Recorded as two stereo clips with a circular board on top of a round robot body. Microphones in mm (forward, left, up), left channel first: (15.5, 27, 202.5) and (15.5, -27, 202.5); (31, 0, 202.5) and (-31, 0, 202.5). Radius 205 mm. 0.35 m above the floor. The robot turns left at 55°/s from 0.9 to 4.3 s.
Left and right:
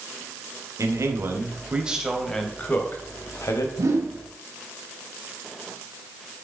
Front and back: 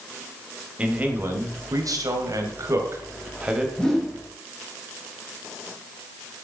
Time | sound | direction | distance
0.8 | a man speaking | 110° right | 3.5 m
3.8 | a whoosh | 75° right | 4.5 m